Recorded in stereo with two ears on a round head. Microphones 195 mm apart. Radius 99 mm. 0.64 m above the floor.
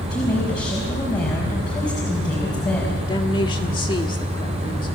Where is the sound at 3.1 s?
20° left (ahead or behind), 1.5 m.